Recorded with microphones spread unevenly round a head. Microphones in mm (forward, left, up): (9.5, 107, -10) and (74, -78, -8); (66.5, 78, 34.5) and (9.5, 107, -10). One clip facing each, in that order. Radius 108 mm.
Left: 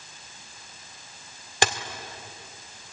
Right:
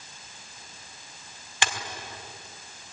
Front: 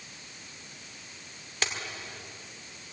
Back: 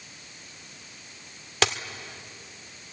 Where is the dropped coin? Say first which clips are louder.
Left 6 dB, back 8 dB; 145° left, 1.6 m.